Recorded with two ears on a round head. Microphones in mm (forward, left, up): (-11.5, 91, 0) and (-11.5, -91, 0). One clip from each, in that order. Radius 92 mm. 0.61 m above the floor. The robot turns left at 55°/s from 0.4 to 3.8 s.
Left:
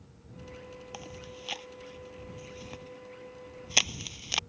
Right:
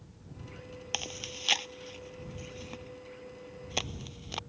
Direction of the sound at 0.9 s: 85° right.